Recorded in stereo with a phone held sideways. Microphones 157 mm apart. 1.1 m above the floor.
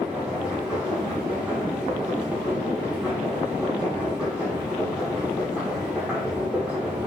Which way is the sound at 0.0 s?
5° right (ahead or behind).